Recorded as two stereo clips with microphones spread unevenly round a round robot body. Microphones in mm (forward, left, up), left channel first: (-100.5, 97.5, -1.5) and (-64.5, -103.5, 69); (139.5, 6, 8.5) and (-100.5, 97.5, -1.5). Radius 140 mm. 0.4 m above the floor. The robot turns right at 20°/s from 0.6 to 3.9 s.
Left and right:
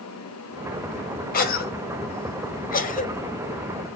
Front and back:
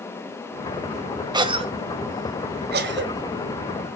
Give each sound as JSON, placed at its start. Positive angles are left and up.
{"t": 1.3, "sound": "a cough", "azimuth_deg": 90, "distance_m": 2.0}